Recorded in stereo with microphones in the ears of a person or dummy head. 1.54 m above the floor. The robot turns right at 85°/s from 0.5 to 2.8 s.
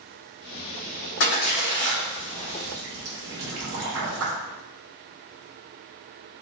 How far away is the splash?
About 1.2 m.